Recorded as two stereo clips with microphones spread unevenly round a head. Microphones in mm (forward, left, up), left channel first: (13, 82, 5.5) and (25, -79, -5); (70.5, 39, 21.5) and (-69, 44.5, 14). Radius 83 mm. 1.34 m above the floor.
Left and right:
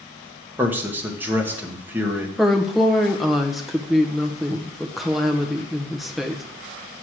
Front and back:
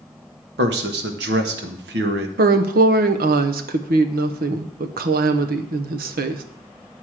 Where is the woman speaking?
175° right, 0.9 m.